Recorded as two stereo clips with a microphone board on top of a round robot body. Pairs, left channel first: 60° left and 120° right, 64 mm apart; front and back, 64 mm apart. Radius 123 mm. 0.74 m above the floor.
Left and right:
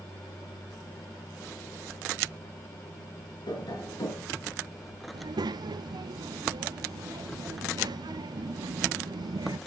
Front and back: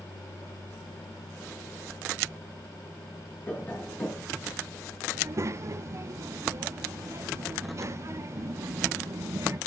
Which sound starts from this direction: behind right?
A child speaking, at 5.1 s.